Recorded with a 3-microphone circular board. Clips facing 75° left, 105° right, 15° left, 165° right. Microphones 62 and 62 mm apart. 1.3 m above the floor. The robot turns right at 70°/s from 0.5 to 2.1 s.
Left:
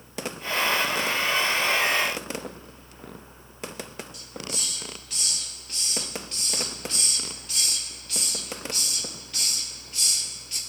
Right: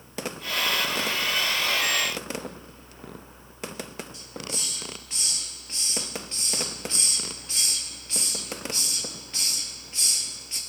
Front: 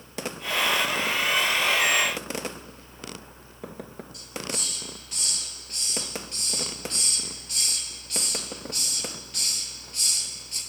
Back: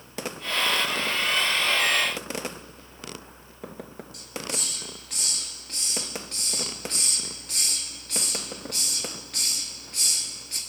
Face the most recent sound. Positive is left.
turn(degrees=-165)